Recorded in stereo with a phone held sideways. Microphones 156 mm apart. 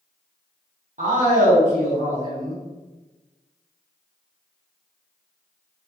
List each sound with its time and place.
1.0 s a man speaking: 55° right (ahead or behind), 0.9 m